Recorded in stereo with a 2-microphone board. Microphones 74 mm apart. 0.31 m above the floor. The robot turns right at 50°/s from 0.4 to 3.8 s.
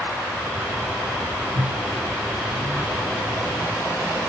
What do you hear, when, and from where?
1.6 s a microwave: 95° right, 2 m; by 4.2 s 20° left, 2 m